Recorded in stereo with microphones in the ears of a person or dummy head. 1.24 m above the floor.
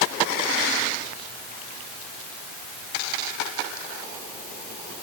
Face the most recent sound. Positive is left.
No sound to turn to.